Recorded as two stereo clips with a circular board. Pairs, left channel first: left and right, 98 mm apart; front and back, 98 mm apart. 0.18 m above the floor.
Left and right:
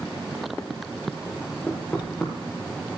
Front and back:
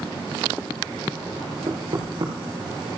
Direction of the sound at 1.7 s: 160° left.